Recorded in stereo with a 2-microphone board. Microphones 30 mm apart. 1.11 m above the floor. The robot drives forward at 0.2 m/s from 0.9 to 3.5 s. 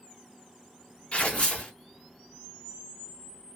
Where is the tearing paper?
45° left (ahead or behind), 1.4 m.